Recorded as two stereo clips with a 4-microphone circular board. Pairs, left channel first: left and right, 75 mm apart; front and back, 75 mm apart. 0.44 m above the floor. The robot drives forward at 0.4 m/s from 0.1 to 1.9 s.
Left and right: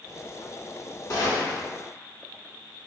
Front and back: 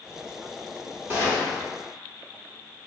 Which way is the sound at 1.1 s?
120° left.